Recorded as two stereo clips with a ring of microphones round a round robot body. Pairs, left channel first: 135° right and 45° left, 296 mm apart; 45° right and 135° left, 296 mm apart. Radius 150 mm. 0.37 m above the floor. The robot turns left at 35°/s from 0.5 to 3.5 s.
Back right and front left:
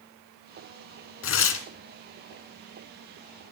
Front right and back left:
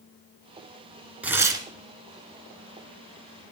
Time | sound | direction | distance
1.2 | tearing paper | 140° right | 1.3 m